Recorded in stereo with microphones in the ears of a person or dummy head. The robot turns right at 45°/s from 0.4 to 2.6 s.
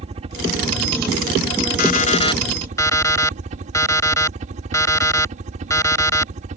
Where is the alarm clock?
130° left; by 6.3 s 165° left.